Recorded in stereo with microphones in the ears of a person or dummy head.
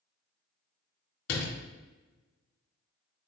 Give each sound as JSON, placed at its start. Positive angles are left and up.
{"t": 1.3, "sound": "a door slam", "side_deg": 85, "distance_m": 2.0}